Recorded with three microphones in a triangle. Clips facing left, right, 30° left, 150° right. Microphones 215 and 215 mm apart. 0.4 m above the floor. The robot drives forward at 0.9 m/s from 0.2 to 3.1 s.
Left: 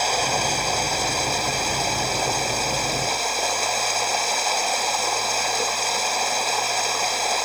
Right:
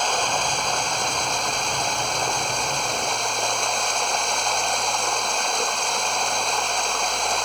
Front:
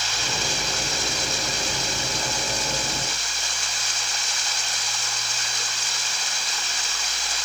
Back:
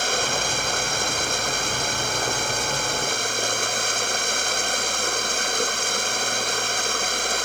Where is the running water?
175° left.